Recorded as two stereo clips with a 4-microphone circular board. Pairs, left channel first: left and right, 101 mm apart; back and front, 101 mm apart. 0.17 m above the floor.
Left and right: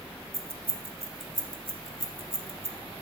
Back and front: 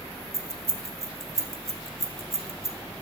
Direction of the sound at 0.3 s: 40° right.